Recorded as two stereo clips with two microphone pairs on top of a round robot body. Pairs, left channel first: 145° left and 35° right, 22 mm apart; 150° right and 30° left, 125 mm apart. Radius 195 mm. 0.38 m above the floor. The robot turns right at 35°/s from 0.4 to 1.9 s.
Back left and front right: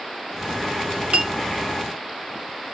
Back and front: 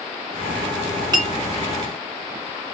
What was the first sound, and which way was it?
A clink, 25° right.